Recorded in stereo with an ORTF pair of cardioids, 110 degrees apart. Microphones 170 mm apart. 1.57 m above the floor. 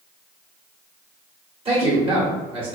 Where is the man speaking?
35° right, 1.4 m.